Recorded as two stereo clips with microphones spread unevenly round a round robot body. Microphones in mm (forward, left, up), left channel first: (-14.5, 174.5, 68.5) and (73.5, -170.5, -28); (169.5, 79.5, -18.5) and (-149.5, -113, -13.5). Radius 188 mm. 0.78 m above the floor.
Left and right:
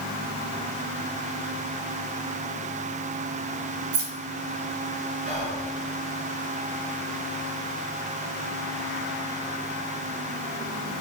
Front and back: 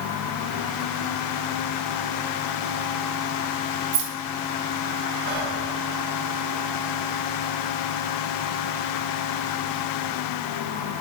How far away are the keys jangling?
About 1.2 m.